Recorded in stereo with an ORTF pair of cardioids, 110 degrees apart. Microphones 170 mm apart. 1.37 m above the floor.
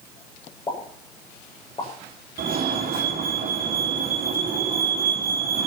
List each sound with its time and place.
0.7 s a pop: 30° left, 7 m
2.4 s a fire alarm: 60° right, 4.5 m